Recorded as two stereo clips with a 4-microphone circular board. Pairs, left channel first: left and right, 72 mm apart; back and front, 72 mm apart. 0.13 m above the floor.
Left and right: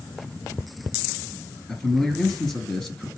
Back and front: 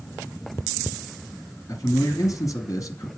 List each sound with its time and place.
1.7 s a man speaking: 170° left, 2.5 m